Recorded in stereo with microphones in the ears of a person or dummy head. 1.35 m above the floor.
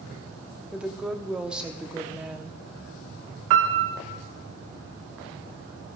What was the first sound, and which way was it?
A woman speaking, 5° right (ahead or behind).